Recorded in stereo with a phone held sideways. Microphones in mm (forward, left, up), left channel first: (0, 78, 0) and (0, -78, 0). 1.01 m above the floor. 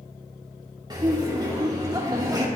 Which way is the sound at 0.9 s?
25° right (ahead or behind).